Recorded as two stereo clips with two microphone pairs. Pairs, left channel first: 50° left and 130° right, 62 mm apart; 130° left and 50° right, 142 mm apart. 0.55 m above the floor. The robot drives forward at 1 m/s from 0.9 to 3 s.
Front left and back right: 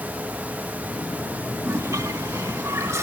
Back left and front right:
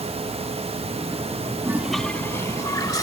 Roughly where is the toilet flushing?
Right.